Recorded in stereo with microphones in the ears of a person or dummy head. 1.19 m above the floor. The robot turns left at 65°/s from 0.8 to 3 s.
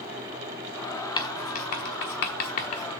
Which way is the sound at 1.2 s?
20° left (ahead or behind).